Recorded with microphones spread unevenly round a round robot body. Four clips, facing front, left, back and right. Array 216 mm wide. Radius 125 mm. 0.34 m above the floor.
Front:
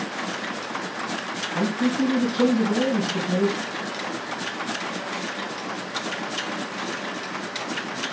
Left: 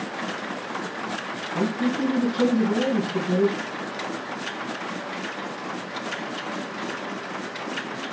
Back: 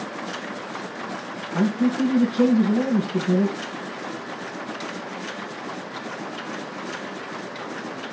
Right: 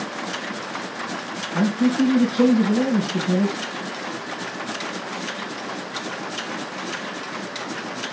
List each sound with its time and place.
1.5 s a man speaking: straight behind, 3.5 m